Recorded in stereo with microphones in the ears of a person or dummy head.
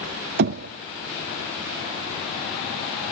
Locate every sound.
0.4 s knocking: 50° right (ahead or behind), 0.5 m